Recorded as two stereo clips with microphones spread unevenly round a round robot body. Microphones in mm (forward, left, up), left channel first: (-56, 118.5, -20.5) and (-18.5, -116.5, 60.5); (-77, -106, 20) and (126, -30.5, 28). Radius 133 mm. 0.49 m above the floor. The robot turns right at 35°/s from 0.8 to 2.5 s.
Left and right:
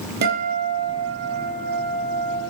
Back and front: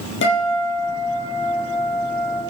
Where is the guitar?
125° right, 5 m; by 2.4 s 70° right, 5 m.